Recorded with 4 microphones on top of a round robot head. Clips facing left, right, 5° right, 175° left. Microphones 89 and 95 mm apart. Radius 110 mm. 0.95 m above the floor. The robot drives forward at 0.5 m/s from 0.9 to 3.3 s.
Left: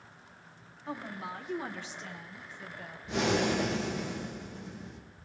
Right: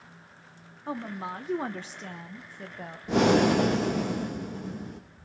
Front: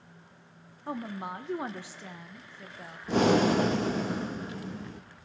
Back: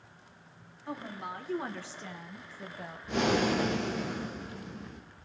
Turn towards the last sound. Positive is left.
turn(degrees=-55)